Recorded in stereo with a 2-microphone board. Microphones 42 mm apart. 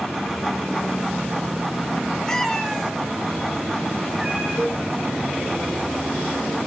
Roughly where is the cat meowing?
Centre.